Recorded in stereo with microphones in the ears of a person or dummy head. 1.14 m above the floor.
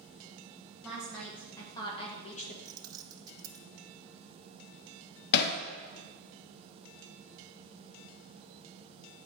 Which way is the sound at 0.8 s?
10° right (ahead or behind).